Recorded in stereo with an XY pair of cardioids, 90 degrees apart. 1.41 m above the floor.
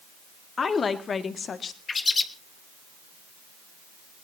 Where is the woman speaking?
45° left, 2 m; by 1.8 s 55° left, 1.6 m.